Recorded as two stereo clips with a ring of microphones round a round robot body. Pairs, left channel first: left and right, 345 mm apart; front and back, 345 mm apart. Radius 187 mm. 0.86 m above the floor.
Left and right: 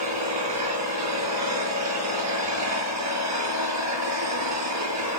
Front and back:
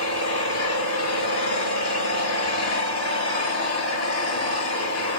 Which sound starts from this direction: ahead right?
An engine running, at 0.0 s.